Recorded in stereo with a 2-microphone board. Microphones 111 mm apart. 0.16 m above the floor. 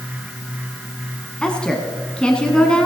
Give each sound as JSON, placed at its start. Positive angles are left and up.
{"t": 1.4, "sound": "a woman speaking", "side_deg": 10, "distance_m": 1.2}